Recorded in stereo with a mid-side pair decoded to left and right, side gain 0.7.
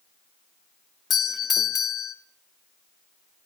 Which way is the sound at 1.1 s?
35° left.